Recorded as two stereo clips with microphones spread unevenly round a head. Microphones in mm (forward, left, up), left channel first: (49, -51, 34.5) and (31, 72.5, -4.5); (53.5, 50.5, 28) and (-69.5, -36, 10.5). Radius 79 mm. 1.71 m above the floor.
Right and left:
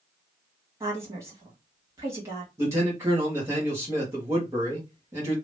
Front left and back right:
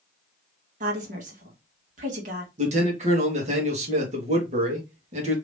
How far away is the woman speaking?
About 1.6 m.